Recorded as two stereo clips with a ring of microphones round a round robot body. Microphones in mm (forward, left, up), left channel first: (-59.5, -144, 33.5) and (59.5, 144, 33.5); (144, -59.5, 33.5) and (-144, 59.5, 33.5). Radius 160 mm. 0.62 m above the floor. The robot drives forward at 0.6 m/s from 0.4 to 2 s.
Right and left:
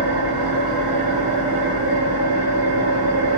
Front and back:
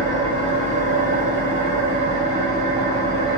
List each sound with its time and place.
0.0 s an engine running: 85° left, 2 m; by 3.4 s 110° left, 2 m